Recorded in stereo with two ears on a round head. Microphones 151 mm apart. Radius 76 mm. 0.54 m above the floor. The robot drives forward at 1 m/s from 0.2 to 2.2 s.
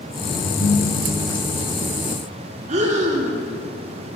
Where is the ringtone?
55° left (ahead or behind), 3 m; by 1.4 s 70° left (ahead or behind), 2.5 m.